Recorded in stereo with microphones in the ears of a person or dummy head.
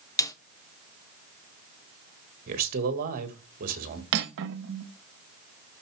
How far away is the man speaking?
About 1.8 m.